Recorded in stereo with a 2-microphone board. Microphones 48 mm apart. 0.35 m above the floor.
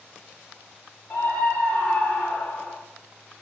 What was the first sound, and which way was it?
A scream, 55° left (ahead or behind).